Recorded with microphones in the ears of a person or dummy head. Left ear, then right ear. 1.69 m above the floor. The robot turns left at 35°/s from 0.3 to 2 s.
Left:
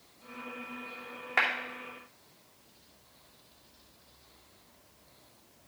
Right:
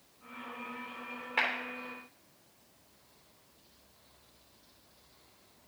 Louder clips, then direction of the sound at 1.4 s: Left 3 dB; 30° left (ahead or behind).